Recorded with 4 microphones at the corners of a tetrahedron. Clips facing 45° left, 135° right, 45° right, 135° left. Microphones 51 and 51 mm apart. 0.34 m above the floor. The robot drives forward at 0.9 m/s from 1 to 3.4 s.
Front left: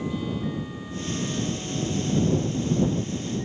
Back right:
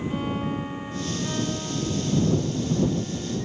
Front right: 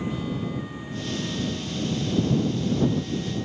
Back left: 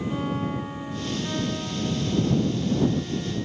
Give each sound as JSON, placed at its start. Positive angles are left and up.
{"t": 0.1, "sound": "a violin", "azimuth_deg": 180}